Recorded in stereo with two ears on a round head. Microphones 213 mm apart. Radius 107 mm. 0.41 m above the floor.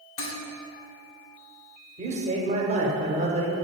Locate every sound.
0.2 s dishes clattering: 60° left (ahead or behind), 1.4 m
2.0 s a man speaking: 30° right (ahead or behind), 0.8 m